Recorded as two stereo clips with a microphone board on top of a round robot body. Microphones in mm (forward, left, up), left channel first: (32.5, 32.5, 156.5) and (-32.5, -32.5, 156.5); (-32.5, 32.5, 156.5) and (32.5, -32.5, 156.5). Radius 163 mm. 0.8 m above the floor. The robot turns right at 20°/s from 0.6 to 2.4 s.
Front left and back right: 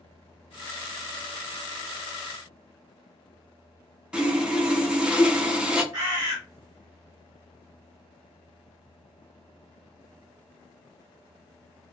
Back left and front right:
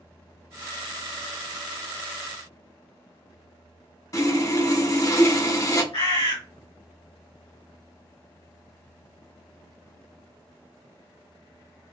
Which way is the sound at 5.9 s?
170° left.